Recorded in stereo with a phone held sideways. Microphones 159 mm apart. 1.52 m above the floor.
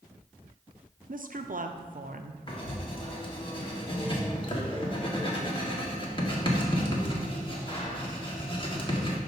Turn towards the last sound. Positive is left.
turn(degrees=35)  # may be behind; listen again after turning